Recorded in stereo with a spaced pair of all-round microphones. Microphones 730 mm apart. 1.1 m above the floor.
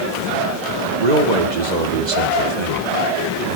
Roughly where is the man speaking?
Right.